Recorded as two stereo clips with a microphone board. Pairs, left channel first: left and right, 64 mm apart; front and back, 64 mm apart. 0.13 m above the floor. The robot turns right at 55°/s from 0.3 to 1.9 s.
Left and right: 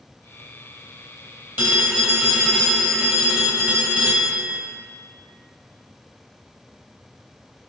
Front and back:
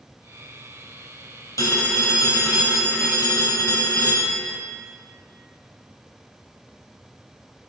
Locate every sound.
1.6 s a phone ringing: 35° right, 2.5 m; by 4.6 s 15° right, 2.5 m